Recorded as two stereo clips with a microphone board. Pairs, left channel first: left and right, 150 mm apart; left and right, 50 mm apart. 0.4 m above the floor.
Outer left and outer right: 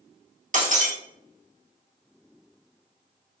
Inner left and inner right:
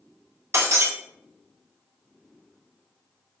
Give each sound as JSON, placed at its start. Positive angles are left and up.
{"t": 0.5, "sound": "breaking glass", "side_deg": -60, "distance_m": 0.7}